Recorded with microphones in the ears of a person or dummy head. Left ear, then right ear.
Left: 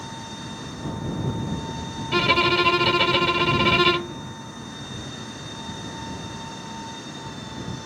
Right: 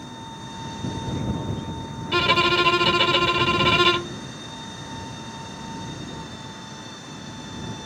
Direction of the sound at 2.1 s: 10° right (ahead or behind).